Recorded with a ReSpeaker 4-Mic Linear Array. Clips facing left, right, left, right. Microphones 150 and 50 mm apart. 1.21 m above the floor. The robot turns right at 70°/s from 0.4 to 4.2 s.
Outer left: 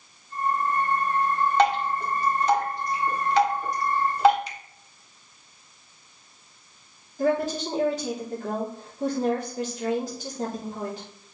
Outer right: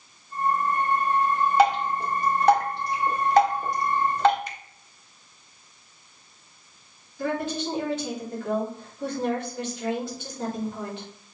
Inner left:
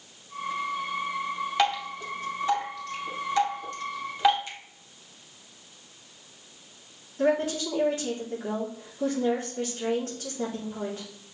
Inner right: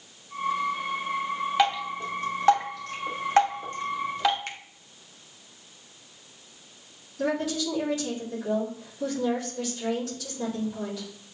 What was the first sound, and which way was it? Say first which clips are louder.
Dripping: outer right 2 dB, inner right 1 dB; 5° right (ahead or behind).